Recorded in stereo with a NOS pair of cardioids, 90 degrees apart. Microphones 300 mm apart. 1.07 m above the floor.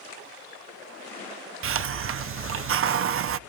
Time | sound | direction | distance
1.6 | a hiss | 45° right | 0.7 m